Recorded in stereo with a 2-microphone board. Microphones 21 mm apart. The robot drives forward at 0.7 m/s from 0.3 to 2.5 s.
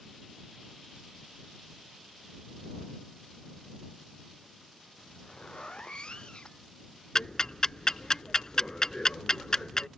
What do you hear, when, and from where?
5.0 s a zipper: 40° left (ahead or behind)
7.2 s ticking: 35° left (ahead or behind)